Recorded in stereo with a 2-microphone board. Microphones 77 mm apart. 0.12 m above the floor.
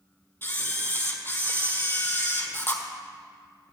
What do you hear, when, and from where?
0.4 s a camera shutter: 30° left (ahead or behind), 1.1 m